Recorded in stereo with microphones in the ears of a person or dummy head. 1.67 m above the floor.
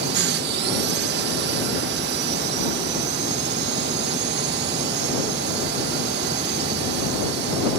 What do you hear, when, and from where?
0.0 s a drone: 55° right (ahead or behind)